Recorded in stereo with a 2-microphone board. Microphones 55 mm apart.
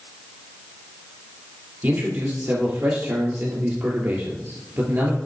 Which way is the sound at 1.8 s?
45° right (ahead or behind).